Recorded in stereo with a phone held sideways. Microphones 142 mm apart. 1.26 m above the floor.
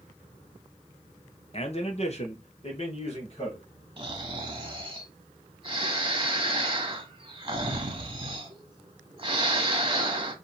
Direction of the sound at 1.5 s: 45° left (ahead or behind).